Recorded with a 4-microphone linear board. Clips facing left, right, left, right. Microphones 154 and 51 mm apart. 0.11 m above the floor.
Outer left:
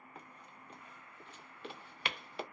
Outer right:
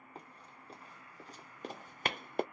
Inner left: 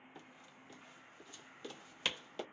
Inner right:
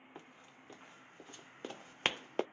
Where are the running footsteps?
35° right (ahead or behind), 2.0 m; by 2.4 s 50° right (ahead or behind), 0.5 m.